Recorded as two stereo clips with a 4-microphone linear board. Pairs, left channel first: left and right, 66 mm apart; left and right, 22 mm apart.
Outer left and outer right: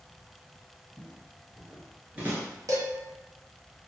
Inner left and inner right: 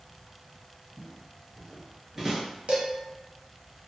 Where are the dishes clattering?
60° right (ahead or behind), 0.8 m.